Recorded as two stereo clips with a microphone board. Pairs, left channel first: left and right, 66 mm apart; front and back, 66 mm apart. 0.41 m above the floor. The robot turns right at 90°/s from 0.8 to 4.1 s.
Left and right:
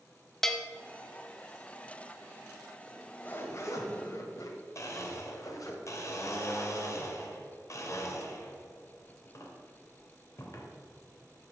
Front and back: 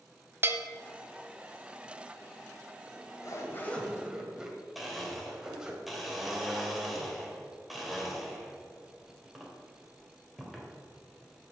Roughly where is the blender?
Left.